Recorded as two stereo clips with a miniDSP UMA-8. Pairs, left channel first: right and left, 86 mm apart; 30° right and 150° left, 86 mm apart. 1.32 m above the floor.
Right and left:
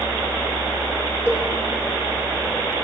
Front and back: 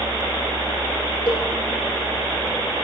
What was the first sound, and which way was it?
A cowbell, 25° right.